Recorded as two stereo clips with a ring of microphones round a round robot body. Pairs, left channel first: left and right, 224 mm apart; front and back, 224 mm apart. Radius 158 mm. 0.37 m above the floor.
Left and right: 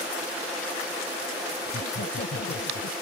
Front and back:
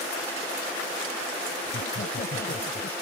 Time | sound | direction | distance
1.6 | laughter | 45° left | ?